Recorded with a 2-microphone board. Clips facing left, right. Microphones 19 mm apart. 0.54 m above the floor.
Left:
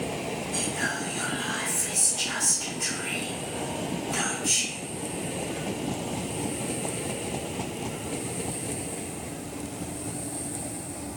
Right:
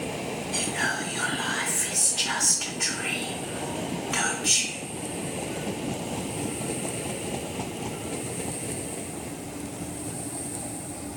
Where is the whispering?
30° right (ahead or behind), 0.7 m.